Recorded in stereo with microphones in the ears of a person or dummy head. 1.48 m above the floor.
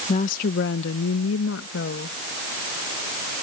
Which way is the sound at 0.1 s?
40° left (ahead or behind).